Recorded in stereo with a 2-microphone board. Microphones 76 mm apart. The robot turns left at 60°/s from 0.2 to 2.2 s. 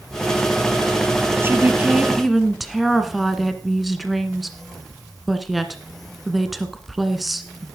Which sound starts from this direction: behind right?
A woman speaking, at 1.4 s.